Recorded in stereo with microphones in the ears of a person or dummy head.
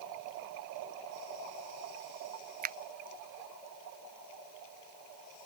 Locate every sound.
2.6 s a finger snap: 40° right (ahead or behind)